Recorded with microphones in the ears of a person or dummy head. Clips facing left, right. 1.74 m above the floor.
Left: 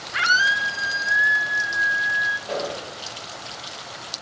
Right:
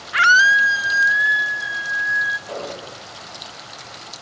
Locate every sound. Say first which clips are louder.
0.1 s a scream: right 7 dB; 50° right (ahead or behind), 0.6 m; by 2.4 s 70° right (ahead or behind), 2 m
2.5 s an explosion: left 3 dB; 15° left (ahead or behind), 3 m